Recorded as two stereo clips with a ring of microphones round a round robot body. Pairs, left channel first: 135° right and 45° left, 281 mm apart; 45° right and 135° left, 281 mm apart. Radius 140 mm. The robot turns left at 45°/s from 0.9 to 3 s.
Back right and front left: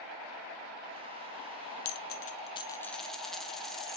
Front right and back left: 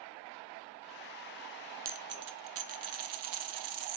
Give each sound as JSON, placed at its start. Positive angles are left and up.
{"t": 1.9, "sound": "a dropped coin", "azimuth_deg": -170, "distance_m": 0.9}